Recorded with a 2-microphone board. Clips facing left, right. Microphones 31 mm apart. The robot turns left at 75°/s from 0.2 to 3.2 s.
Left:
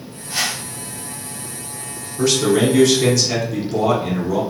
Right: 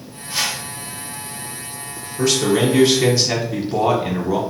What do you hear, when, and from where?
0.3 s a whoosh: 15° right (ahead or behind), 1.9 m; by 0.6 s 35° right (ahead or behind), 1.9 m
2.2 s a man speaking: centre (ahead or behind), 1.0 m; by 4.4 s 25° right (ahead or behind), 1.0 m